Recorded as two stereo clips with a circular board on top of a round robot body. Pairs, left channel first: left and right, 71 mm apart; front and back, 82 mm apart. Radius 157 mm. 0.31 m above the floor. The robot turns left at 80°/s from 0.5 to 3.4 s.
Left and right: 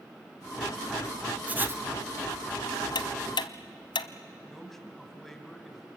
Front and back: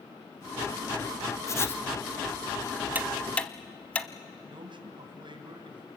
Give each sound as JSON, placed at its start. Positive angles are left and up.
{"t": 1.5, "sound": "writing", "azimuth_deg": -30, "distance_m": 1.3}
{"t": 3.0, "sound": "ticking", "azimuth_deg": 110, "distance_m": 0.8}
{"t": 4.5, "sound": "a man speaking", "azimuth_deg": 175, "distance_m": 3.0}